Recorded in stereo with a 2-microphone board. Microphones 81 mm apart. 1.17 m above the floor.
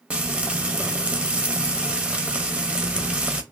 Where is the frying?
15° right (ahead or behind), 0.8 m.